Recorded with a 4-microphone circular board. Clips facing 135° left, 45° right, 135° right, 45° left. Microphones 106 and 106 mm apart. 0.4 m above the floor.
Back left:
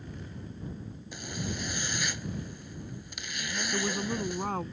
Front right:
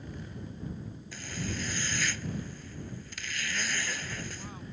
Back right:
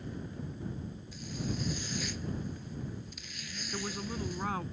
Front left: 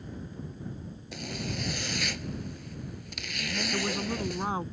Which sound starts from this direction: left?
A woman speaking, at 3.7 s.